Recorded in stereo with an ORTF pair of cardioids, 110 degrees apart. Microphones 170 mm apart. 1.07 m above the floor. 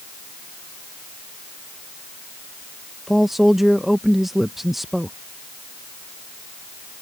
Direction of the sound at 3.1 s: Straight ahead.